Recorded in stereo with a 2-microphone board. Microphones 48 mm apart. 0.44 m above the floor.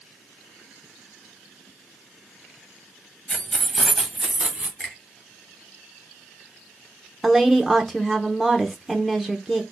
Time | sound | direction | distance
3.3 | keys jangling | 25° left (ahead or behind) | 1.3 m
4.8 | a finger snap | 10° left (ahead or behind) | 2.5 m
7.2 | a woman speaking | centre (ahead or behind) | 0.7 m